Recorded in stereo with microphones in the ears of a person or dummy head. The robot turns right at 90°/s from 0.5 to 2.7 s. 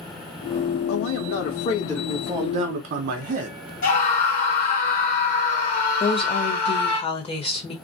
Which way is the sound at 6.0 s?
35° left (ahead or behind).